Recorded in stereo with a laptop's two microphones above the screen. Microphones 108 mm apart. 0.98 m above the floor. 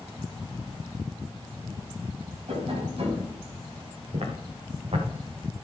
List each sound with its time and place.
2.5 s tapping: 65° right (ahead or behind), 5.5 m
4.1 s footsteps: 70° right (ahead or behind), 5 m